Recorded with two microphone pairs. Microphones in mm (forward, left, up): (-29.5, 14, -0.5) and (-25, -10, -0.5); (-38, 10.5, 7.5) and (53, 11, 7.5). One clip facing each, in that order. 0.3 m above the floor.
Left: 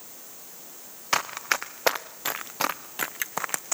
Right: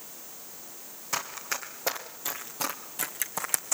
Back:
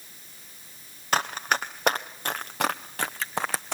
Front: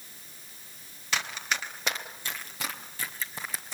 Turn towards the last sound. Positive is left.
turn(degrees=175)